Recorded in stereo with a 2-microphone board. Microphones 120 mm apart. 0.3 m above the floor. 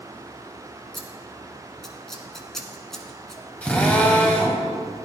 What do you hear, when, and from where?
0.9 s scissors: 5° left (ahead or behind), 1.2 m
3.6 s a drill: 10° left (ahead or behind), 1.8 m